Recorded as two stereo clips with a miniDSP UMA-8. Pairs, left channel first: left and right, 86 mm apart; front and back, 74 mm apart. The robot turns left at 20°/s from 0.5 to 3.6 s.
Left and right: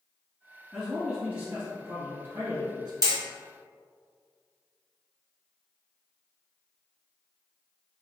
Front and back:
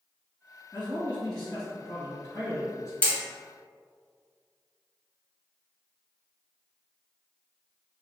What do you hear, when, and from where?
0.7 s a man speaking: 5° right, 1.9 m; by 2.9 s 45° right, 1.9 m
3.0 s hammering: 65° right, 1.7 m; by 3.2 s 70° right, 1.7 m